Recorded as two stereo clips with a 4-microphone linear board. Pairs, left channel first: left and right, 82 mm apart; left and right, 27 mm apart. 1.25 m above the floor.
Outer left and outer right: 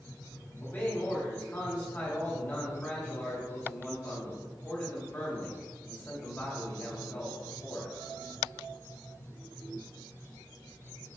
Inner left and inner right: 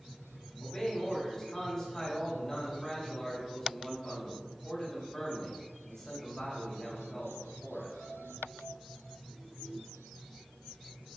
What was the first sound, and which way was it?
A man speaking, 25° left (ahead or behind).